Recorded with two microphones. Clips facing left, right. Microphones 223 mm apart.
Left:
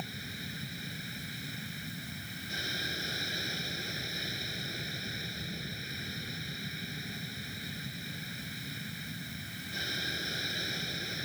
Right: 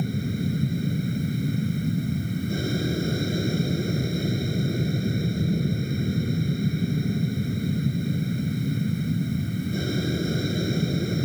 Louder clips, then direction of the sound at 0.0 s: Right 17 dB; 50° right (ahead or behind).